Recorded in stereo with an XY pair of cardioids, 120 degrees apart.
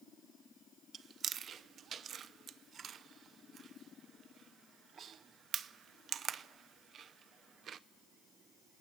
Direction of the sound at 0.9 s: 45° right.